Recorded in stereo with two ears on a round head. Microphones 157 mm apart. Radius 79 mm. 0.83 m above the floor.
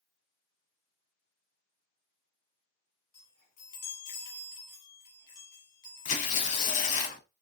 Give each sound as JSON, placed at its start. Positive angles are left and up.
{"t": 3.1, "sound": "a chime", "side_deg": 55, "distance_m": 1.6}
{"t": 6.0, "sound": "tearing paper", "side_deg": 45, "distance_m": 0.9}